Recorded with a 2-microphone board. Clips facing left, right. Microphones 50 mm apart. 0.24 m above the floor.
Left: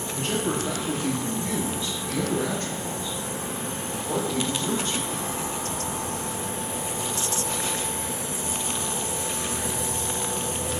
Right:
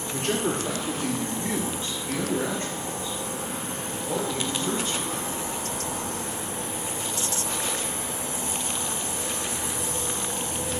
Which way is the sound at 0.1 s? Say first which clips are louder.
Right 1 dB; 60° right (ahead or behind).